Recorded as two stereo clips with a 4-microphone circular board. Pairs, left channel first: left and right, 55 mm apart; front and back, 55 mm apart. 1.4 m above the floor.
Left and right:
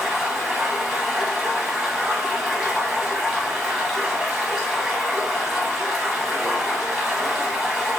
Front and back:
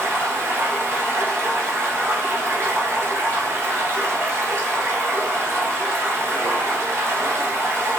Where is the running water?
170° right, 0.9 m.